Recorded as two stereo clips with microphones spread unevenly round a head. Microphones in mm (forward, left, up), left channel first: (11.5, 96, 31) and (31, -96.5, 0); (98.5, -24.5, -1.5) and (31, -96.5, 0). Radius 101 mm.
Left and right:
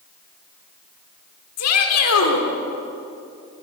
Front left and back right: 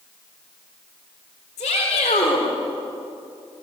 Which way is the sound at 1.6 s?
100° left.